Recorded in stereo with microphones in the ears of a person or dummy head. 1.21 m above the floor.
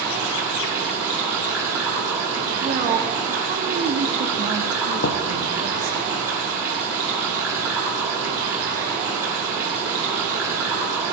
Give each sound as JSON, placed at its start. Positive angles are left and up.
{"t": 0.0, "sound": "running water", "side_deg": -10, "distance_m": 5.5}
{"t": 2.6, "sound": "a woman speaking", "side_deg": -40, "distance_m": 0.9}
{"t": 5.0, "sound": "knocking", "side_deg": 60, "distance_m": 0.8}